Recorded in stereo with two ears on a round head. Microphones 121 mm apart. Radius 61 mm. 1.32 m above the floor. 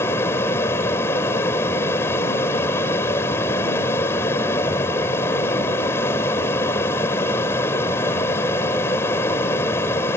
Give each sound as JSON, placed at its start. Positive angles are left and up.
{"t": 0.0, "sound": "an aircraft", "side_deg": 20}